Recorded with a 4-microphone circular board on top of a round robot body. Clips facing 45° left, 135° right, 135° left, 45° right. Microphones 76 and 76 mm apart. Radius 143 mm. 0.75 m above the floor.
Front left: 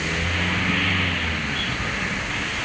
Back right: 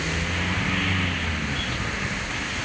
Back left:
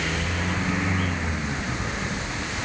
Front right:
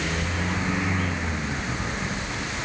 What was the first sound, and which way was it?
Only background noise.